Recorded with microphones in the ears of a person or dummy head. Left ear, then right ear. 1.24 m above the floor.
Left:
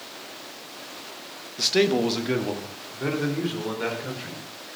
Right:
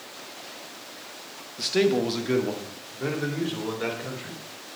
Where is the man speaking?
10° left (ahead or behind), 1.0 m; by 4.4 s centre (ahead or behind), 4.5 m.